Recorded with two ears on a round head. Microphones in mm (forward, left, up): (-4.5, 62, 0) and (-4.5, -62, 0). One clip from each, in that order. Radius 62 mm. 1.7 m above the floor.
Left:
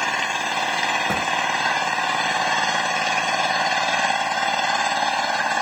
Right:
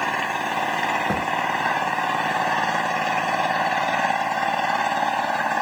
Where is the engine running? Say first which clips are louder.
Left 1 dB; 70° left (ahead or behind).